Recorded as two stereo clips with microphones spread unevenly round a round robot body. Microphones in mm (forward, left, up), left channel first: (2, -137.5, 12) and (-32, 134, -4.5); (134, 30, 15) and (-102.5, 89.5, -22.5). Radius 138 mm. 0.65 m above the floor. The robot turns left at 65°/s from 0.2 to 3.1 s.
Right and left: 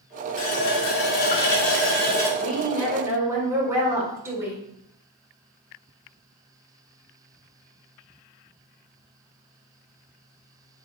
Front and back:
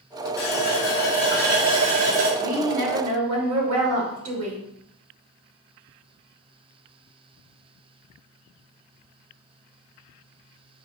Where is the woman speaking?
140° right, 3 m; by 4.6 s 175° left, 3 m.